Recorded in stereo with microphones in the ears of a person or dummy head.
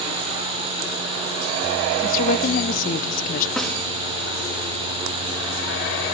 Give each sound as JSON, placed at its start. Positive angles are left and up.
{"t": 2.0, "sound": "a woman speaking", "side_deg": 50, "distance_m": 0.9}
{"t": 3.6, "sound": "a snare drum", "side_deg": 5, "distance_m": 2.5}